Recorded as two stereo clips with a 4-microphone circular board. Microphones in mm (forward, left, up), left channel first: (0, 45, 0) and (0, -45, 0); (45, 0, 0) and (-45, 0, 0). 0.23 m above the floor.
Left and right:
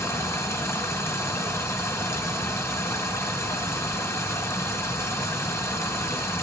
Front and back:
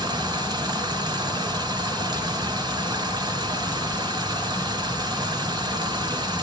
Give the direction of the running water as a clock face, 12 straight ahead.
7 o'clock.